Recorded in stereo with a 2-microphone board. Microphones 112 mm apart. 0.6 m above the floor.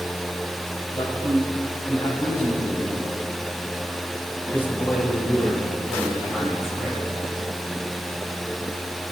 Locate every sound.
0.9 s a man speaking: 50° left (ahead or behind), 3.5 m; by 7.0 s centre (ahead or behind), 5 m